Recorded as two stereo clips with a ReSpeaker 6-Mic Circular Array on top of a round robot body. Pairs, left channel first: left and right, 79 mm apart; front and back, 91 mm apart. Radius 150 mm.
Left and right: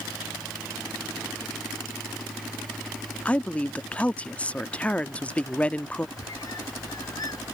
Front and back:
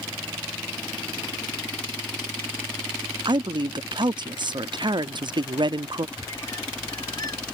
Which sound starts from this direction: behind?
A woman speaking, at 3.2 s.